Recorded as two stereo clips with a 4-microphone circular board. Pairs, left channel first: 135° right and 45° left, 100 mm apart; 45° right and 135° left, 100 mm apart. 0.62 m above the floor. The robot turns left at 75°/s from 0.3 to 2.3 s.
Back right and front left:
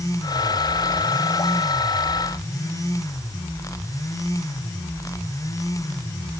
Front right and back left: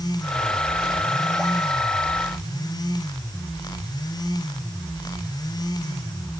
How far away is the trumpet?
No trumpet in this recording.